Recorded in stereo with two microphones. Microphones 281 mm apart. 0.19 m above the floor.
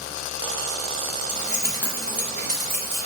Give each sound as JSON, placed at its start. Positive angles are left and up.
{"t": 1.3, "sound": "keys jangling", "side_deg": 0, "distance_m": 1.1}